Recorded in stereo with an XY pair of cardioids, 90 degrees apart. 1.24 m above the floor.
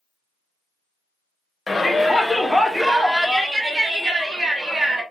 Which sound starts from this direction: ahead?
A shout, at 1.7 s.